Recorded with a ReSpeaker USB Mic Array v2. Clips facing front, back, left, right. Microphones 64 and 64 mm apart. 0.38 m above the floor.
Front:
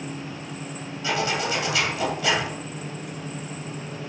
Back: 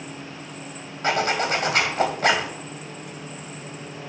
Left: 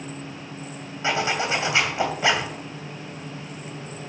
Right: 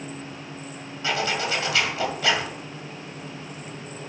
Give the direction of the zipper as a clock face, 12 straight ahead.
7 o'clock.